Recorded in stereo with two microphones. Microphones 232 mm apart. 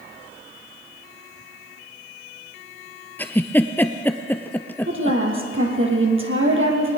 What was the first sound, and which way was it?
A giggle, 10° left (ahead or behind).